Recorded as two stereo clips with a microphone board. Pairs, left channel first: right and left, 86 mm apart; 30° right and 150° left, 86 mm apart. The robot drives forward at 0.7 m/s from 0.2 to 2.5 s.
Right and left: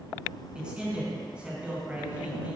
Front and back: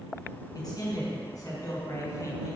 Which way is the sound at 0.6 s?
10° left.